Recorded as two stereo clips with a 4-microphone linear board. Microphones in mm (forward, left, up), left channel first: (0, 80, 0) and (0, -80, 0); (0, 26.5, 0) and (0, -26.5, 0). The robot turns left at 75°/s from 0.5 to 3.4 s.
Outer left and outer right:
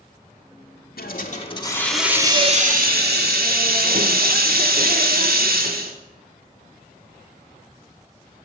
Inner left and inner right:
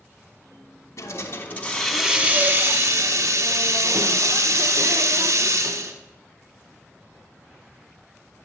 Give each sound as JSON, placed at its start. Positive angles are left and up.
{"t": 1.0, "sound": "a hiss", "azimuth_deg": 75, "distance_m": 0.7}